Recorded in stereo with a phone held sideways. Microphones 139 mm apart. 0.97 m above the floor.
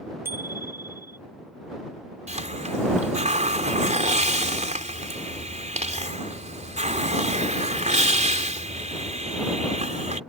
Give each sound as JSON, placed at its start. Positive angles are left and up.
{"t": 0.2, "sound": "a bicycle bell", "side_deg": -20}
{"t": 2.3, "sound": "a hiss", "side_deg": -60}